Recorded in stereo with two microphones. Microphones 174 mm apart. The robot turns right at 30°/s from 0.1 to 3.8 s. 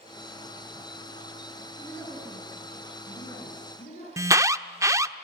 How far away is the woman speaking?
About 7.5 m.